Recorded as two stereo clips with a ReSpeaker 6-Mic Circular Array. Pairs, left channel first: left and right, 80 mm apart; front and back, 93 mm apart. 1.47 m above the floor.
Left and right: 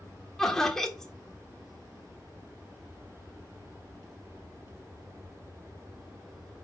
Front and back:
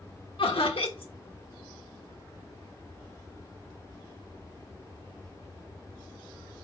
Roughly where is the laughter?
Ahead.